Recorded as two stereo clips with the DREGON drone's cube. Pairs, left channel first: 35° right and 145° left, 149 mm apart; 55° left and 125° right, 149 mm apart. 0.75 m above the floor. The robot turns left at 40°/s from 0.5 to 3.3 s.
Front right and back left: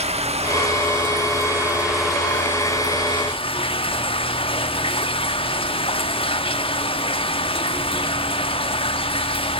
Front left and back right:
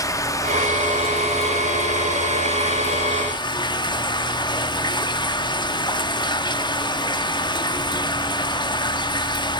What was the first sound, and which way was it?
Running water, 120° left.